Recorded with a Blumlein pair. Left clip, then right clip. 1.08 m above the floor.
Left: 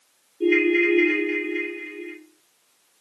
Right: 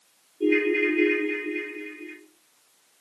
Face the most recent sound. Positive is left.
turn(degrees=20)